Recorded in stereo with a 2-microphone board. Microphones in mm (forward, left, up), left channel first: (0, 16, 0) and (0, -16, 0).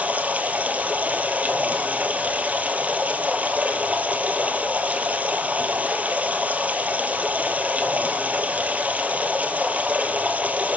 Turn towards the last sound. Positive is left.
turn(degrees=-50)  # may be behind; listen again after turning